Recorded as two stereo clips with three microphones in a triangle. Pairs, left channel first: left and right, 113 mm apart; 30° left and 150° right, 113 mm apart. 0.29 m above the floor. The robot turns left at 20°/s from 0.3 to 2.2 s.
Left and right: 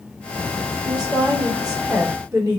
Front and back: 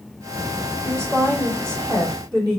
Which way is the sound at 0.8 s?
100° right.